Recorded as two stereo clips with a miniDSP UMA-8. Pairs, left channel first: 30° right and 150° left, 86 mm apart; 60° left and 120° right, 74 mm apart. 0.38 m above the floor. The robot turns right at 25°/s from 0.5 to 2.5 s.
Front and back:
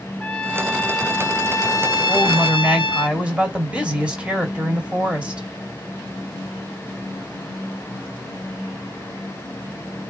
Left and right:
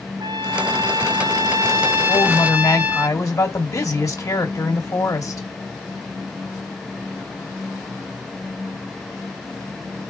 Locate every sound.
0.2 s a trumpet: 105° right, 0.5 m; by 3.1 s 55° right, 0.5 m
2.1 s a woman speaking: 65° left, 1.5 m; by 5.5 s 80° left, 1.5 m